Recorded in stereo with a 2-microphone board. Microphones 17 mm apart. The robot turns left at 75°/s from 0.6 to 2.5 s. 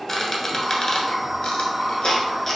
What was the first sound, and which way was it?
A squeak, 25° left (ahead or behind).